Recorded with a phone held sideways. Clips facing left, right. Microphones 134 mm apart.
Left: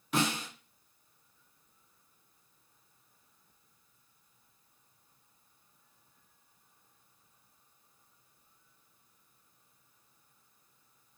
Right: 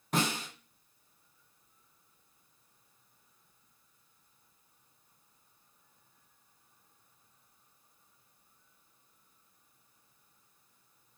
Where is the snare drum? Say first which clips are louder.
Left 1 dB; 45° right (ahead or behind), 3 m.